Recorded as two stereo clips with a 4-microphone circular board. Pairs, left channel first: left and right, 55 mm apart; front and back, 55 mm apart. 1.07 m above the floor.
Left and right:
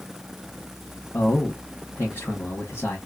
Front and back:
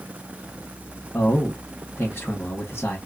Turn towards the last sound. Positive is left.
turn(degrees=45)